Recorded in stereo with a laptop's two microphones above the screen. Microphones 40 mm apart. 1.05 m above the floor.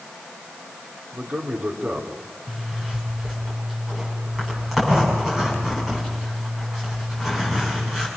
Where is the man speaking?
30° right (ahead or behind), 3 m.